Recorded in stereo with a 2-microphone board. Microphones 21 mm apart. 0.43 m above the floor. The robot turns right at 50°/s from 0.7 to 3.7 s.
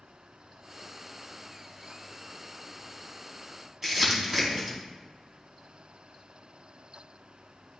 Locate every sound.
3.8 s crumpling: 20° right (ahead or behind), 2 m